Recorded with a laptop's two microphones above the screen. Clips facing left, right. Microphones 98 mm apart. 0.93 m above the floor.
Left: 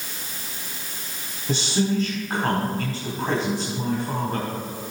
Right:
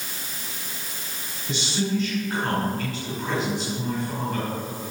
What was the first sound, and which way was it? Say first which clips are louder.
A man speaking: left 3 dB; 50° left (ahead or behind).